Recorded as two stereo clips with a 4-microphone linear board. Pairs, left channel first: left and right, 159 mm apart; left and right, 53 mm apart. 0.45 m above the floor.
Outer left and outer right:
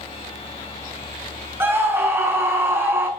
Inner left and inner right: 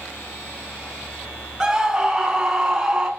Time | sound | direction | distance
1.6 | a scream | 15° right (ahead or behind) | 5.5 m